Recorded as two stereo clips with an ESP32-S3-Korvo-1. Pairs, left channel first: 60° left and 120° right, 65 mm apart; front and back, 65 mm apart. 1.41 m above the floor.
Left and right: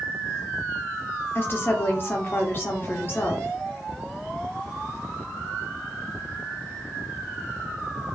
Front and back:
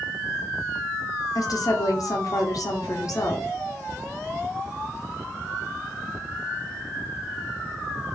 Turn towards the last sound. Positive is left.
turn(degrees=10)